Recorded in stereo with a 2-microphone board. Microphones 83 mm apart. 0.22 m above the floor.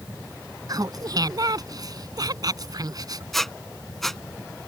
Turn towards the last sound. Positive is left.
turn(degrees=5)  # may be behind; listen again after turning